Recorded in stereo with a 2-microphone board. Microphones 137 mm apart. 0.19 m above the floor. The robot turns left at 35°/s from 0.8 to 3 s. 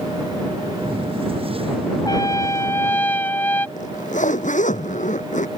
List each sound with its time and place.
2.0 s a trumpet: 55° left; by 3.7 s 25° left
3.8 s a zipper: 65° left (ahead or behind)